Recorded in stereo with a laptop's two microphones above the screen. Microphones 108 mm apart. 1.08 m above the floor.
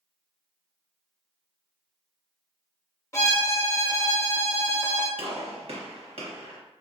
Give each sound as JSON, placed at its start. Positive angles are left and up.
{"t": 3.1, "sound": "a violin", "side_deg": 30, "distance_m": 0.7}
{"t": 5.2, "sound": "a gunshot", "side_deg": -65, "distance_m": 1.0}